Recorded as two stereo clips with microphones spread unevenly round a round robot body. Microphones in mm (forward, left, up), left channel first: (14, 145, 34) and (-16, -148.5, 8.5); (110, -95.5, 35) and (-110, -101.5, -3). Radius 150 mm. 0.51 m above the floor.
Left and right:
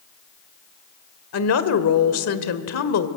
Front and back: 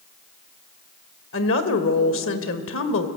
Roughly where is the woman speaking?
Ahead left.